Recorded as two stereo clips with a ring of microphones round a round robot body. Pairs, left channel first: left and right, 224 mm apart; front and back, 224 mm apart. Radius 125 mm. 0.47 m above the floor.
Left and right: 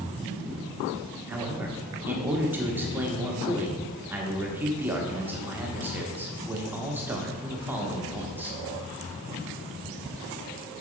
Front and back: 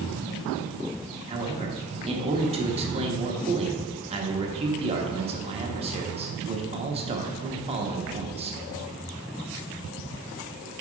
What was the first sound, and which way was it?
A man speaking, 160° right.